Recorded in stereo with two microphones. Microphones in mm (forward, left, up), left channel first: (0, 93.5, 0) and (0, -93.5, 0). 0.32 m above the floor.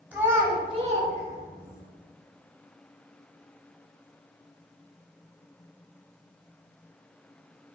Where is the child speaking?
10° right (ahead or behind), 1.0 m; by 1.8 s 35° right (ahead or behind), 1.2 m.